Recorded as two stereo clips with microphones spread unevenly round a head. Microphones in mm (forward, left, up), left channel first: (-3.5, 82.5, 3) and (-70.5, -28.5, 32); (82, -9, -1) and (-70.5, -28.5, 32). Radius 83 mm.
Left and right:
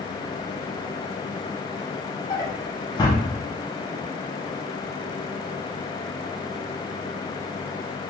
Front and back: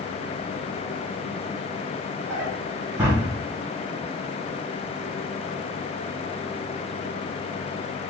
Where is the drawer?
120° left, 0.9 m.